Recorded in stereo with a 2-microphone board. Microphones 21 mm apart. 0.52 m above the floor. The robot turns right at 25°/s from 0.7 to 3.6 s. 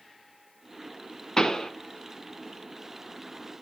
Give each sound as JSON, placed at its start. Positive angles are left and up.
{"t": 1.4, "sound": "a pop", "side_deg": 15, "distance_m": 1.5}